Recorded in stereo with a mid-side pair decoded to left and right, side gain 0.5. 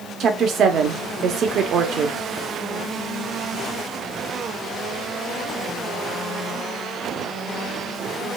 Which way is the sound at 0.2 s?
60° right.